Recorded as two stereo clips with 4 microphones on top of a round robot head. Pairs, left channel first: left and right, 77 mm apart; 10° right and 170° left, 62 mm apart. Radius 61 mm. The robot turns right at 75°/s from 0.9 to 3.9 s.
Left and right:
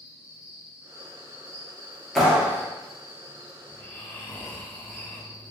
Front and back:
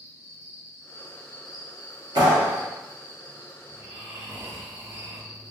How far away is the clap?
About 1.0 m.